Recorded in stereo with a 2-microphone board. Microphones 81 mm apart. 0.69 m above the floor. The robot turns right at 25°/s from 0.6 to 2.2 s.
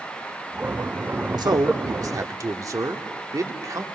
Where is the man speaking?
60° right (ahead or behind), 1.6 m; by 3.9 s 45° right (ahead or behind), 1.6 m.